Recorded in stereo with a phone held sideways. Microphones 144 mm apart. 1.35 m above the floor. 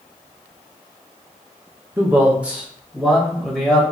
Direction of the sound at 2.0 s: 15° right (ahead or behind).